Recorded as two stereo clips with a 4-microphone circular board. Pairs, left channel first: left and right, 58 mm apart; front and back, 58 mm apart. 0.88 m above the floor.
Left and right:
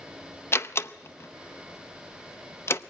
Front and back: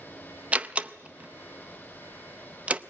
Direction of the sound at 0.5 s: 120° left.